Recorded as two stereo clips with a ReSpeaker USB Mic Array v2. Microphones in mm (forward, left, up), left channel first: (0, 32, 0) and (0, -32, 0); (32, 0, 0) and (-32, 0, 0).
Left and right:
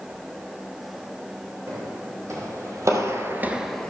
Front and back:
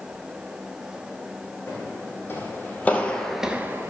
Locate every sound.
1.7 s footsteps: 50° right, 3 m; by 3.9 s 160° left, 0.9 m